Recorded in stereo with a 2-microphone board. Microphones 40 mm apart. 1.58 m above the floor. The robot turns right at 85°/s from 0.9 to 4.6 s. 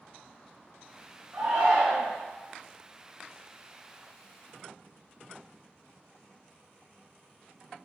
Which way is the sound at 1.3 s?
110° right.